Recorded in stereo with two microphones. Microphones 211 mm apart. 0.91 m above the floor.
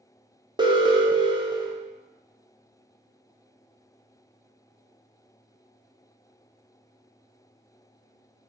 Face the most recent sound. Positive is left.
turn(degrees=-20)  # may be behind; listen again after turning